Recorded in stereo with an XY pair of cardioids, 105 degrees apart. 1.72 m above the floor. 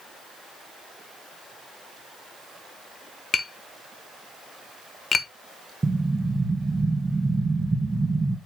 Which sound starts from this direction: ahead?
An explosion, at 5.8 s.